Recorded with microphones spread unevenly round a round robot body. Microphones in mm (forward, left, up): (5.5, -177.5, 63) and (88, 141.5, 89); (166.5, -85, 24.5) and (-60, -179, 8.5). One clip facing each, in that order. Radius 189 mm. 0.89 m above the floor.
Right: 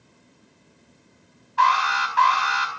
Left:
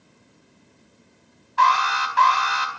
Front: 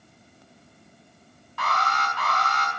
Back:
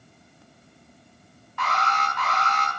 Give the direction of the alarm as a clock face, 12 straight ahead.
9 o'clock.